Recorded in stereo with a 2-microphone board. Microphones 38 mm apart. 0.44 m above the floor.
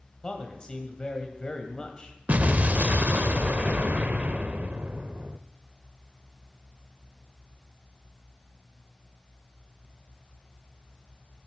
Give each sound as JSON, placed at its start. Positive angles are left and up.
{"t": 0.2, "sound": "a man speaking", "side_deg": 25, "distance_m": 2.0}
{"t": 2.3, "sound": "an explosion", "side_deg": -45, "distance_m": 0.7}